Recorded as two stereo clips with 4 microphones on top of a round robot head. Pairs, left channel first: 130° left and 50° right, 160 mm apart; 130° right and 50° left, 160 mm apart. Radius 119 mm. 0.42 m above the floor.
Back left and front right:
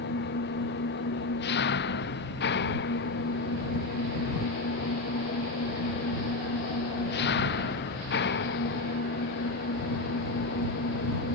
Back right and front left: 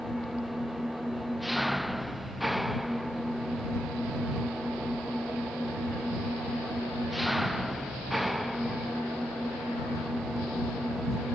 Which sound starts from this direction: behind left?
An engine running, at 0.0 s.